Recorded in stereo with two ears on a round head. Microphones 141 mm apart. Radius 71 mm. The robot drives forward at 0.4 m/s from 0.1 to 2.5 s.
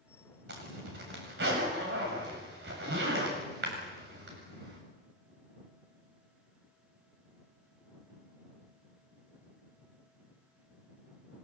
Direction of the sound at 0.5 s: 80° right.